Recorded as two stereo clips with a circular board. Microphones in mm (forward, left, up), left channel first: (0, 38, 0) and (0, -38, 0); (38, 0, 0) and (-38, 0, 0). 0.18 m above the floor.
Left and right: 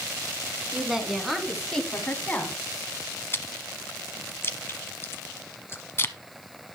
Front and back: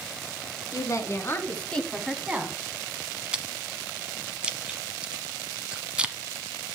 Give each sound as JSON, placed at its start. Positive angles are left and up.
{"t": 0.7, "sound": "a woman speaking", "azimuth_deg": -10, "distance_m": 2.0}
{"t": 3.3, "sound": "chewing", "azimuth_deg": 115, "distance_m": 0.9}